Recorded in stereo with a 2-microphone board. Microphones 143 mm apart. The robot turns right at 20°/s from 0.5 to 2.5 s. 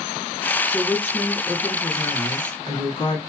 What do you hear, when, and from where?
0.7 s a woman speaking: 10° left, 1.9 m; by 3.2 s 45° left, 1.9 m